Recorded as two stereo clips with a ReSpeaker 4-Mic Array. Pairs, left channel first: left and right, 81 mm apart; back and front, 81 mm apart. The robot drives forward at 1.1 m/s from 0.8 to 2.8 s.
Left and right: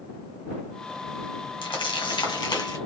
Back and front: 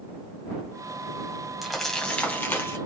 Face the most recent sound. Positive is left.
turn(degrees=125)